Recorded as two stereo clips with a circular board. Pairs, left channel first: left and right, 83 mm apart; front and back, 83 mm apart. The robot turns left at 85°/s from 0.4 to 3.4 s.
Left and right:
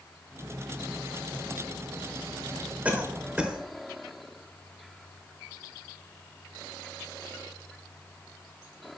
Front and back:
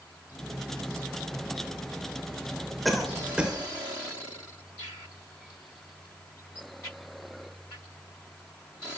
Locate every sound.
2.9 s a cough: 90° right, 1.1 m; by 3.6 s 135° right, 1.1 m